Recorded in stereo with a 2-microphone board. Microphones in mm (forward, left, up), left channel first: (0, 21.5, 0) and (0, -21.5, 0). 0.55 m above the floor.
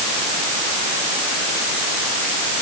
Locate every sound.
Only background noise.